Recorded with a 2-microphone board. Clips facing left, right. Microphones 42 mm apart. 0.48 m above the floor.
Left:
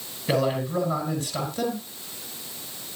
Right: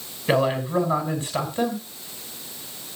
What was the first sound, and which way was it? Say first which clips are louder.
A man speaking: right 3 dB; 30° right (ahead or behind).